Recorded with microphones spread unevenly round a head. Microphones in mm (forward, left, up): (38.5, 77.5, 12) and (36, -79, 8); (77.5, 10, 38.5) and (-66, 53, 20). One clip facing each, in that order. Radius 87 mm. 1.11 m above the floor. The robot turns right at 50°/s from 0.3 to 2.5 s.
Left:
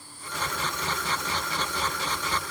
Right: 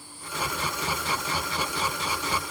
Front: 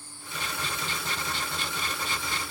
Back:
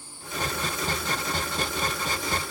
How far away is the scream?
I don't hear a scream.